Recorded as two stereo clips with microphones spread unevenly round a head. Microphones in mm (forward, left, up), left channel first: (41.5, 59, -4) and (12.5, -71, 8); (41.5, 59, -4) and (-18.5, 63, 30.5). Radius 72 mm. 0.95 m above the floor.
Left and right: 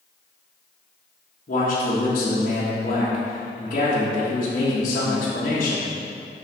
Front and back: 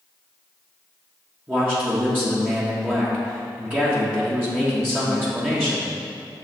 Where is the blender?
No blender in this recording.